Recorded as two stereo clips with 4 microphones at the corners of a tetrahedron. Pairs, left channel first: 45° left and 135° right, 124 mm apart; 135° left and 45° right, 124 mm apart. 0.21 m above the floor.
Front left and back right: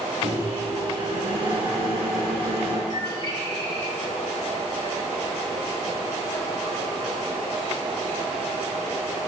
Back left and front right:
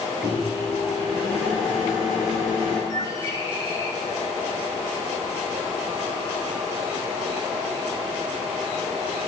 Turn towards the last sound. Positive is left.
turn(degrees=-175)